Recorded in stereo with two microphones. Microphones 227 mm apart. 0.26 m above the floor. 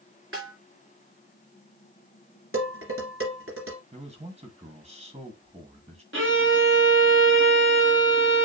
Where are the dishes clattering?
70° right (ahead or behind), 2.5 m.